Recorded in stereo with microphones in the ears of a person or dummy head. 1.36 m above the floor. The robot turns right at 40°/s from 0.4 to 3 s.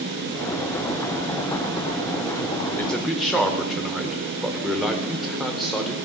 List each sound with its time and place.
2.8 s a man speaking: 15° left (ahead or behind), 0.8 m; by 6.0 s 5° left (ahead or behind), 0.8 m